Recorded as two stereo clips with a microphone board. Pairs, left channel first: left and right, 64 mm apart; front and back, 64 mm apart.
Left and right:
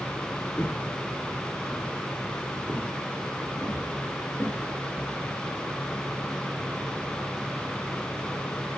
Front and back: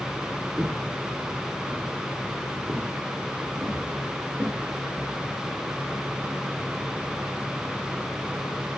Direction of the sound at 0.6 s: 150° left.